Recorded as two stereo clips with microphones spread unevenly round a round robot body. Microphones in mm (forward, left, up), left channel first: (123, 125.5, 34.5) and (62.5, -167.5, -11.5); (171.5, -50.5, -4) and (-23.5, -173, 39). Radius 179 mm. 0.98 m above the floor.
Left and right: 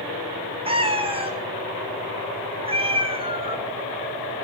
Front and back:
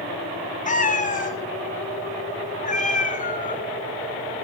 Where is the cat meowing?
30° right, 1.7 m.